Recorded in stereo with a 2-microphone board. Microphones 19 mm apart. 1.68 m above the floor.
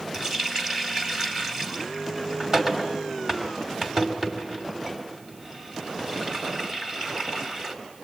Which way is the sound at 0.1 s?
25° right (ahead or behind).